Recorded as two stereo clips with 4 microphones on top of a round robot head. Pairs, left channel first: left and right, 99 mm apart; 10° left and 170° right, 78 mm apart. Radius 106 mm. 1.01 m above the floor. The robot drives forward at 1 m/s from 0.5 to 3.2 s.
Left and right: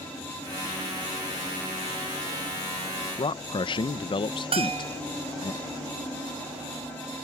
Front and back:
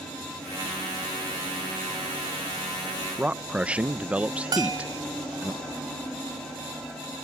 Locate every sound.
3.2 s a man speaking: 115° left; by 5.5 s 120° left
4.5 s a bell: 125° right